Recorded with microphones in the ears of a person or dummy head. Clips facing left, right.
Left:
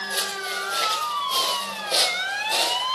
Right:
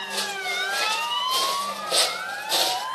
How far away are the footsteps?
About 5 m.